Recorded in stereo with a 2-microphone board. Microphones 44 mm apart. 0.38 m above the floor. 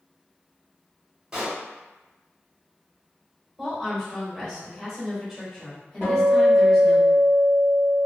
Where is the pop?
15° right (ahead or behind), 1.4 m.